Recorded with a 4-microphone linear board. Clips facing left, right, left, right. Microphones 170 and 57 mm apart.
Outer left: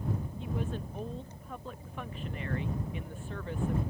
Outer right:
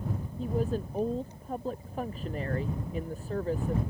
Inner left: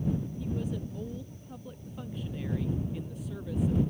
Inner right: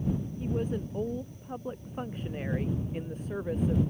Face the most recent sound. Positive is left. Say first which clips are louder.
# outer right 6 dB, inner right 3 dB
turn(degrees=-35)  # may be behind; listen again after turning